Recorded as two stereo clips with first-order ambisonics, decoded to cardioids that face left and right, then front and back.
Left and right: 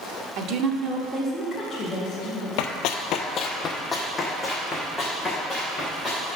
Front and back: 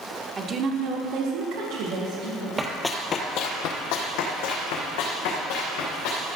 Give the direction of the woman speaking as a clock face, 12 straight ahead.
4 o'clock.